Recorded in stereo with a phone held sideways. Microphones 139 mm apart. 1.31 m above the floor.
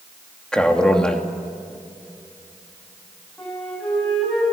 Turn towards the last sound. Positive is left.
turn(degrees=5)  # may be behind; listen again after turning